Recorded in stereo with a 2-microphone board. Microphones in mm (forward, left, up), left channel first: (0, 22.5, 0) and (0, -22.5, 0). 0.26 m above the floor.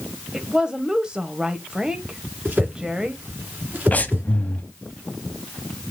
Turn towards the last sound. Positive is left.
turn(degrees=35)  # may be behind; listen again after turning